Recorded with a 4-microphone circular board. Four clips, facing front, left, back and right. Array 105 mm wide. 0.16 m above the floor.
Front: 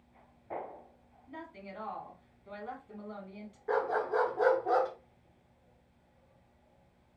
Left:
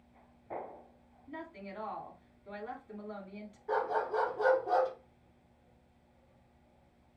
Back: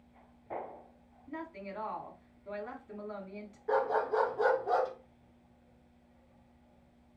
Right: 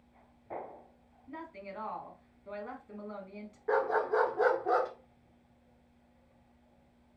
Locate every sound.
1.3 s a woman speaking: 135° right, 1.0 m
3.7 s a dog barking: 75° right, 1.0 m